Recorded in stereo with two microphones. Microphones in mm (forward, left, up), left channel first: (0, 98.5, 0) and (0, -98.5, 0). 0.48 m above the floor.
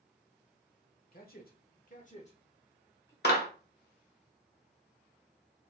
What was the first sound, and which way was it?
A man speaking, 50° left (ahead or behind).